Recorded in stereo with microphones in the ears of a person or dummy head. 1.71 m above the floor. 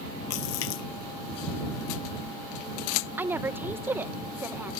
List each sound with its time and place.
0.3 s a splash: 80° left
3.2 s a woman speaking: 10° right (ahead or behind)